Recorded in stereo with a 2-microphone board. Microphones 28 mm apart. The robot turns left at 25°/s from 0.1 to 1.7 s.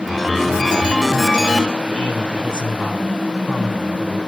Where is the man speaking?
30° left (ahead or behind), 7 m.